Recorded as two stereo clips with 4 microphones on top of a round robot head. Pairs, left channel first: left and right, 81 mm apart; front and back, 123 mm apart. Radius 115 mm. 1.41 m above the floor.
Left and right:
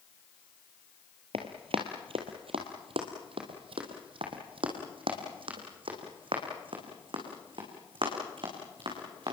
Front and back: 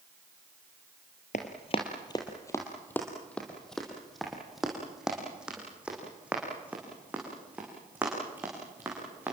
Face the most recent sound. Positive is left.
turn(degrees=-105)